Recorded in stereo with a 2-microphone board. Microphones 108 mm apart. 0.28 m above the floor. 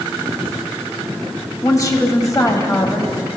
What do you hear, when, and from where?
1.6 s a woman speaking: 35° left (ahead or behind), 1.2 m